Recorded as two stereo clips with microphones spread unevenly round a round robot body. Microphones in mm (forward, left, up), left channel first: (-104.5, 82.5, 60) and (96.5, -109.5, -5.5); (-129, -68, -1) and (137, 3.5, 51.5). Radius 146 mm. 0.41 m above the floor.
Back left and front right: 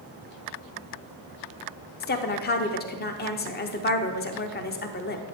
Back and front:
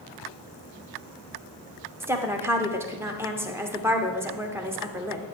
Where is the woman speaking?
110° left, 0.9 m.